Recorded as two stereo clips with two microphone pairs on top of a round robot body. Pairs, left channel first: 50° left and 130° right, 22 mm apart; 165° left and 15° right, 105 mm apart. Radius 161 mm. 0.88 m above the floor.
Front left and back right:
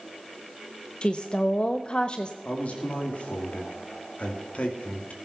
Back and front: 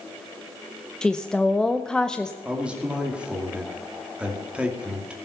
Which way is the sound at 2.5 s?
65° left.